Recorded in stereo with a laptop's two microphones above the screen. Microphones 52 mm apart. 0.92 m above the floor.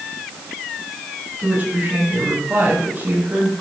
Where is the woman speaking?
35° right (ahead or behind), 6 m.